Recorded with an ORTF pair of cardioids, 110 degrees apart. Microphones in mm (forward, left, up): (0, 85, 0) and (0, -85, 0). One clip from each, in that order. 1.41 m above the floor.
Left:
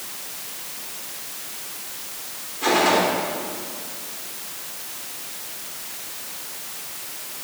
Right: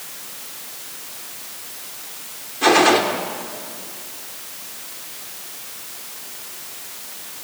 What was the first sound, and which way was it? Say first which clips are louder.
A gunshot: right 4 dB; 50° right.